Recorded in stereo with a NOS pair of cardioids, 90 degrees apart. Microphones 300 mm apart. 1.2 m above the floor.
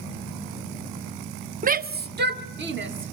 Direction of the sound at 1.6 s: 30° right.